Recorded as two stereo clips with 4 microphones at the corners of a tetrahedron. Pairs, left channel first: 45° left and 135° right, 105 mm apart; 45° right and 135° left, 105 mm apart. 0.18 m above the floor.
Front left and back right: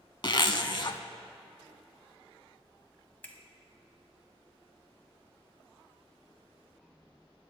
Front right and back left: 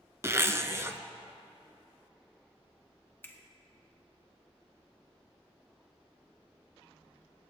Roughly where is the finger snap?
Ahead.